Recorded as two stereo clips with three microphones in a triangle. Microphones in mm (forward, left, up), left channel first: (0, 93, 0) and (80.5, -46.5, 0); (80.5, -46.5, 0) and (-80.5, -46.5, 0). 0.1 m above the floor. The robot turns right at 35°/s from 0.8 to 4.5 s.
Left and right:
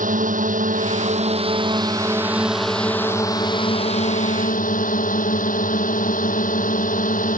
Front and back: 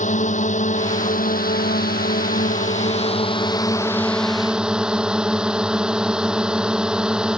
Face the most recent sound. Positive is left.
turn(degrees=95)